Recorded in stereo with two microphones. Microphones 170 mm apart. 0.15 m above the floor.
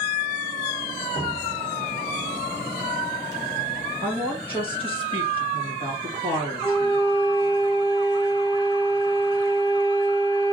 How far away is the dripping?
About 1.3 m.